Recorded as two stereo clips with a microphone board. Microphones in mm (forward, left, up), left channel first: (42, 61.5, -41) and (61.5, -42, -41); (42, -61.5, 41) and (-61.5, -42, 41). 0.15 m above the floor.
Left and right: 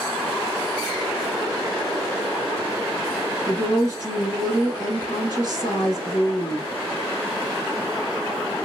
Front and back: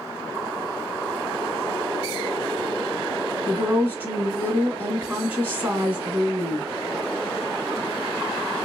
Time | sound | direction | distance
3.5 | a woman speaking | 115° left | 1.2 m